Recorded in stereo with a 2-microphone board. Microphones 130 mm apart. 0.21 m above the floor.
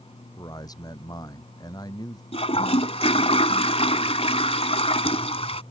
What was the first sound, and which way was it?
A man speaking, 30° left (ahead or behind).